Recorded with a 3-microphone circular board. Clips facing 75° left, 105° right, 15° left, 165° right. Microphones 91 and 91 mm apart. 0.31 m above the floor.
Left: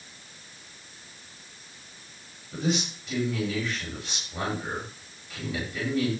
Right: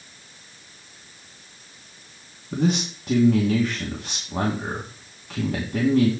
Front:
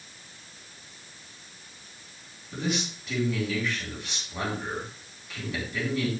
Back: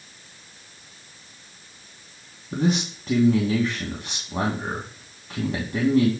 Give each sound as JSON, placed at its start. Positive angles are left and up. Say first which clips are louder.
{"t": 2.5, "sound": "a man speaking", "louder": "right 5 dB, back 7 dB", "azimuth_deg": -125, "distance_m": 3.0}